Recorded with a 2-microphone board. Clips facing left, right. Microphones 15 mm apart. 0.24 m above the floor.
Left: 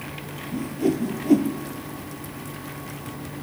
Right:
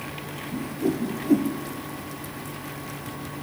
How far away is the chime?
No chime in this recording.